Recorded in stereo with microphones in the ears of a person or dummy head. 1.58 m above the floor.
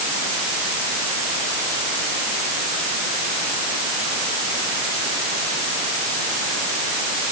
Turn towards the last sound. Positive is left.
No sound to turn to.